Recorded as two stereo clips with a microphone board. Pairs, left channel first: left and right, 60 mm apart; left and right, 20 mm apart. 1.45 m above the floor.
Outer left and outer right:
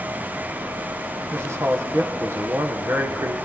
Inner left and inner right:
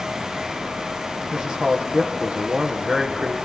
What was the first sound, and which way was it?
A man speaking, 50° right (ahead or behind).